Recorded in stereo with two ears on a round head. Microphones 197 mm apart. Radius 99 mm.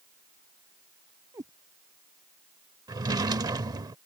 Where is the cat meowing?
15° right (ahead or behind).